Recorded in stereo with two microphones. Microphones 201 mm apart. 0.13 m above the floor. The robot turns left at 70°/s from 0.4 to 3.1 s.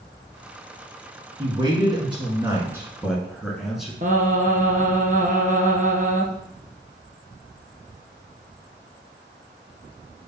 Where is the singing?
40° right (ahead or behind), 1.0 m.